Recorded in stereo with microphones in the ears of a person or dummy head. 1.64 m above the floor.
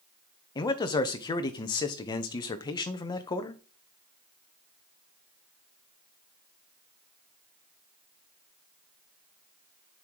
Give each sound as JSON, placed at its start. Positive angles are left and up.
{"t": 0.6, "sound": "a man speaking", "side_deg": 20, "distance_m": 0.8}